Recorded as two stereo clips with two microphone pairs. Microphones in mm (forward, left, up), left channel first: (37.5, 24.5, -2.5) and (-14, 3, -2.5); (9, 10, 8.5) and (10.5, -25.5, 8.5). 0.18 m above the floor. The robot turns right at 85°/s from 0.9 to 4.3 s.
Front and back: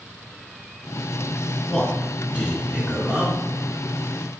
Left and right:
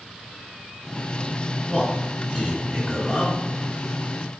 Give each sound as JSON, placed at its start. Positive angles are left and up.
{"t": 1.7, "sound": "a man speaking", "azimuth_deg": 115, "distance_m": 1.7}